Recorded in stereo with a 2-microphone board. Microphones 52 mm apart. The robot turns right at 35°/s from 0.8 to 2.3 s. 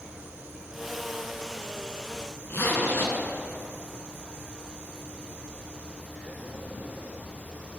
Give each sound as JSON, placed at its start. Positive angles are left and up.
{"t": 2.5, "sound": "a zipper", "side_deg": 55, "distance_m": 1.1}